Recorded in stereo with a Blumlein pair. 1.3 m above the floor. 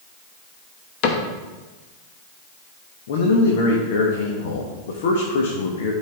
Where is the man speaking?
55° left, 1.3 m.